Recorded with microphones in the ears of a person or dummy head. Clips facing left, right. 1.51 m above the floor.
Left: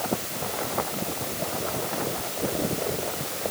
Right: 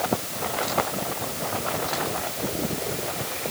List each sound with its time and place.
Only background noise.